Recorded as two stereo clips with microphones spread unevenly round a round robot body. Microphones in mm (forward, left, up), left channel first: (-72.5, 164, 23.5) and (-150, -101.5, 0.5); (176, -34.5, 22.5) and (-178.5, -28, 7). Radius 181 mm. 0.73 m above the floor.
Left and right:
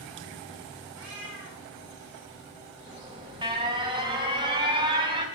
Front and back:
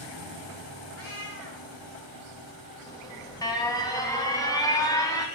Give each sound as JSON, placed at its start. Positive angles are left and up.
{"t": 0.9, "sound": "a cat meowing", "azimuth_deg": -50, "distance_m": 2.5}
{"t": 2.9, "sound": "an alarm", "azimuth_deg": -75, "distance_m": 1.3}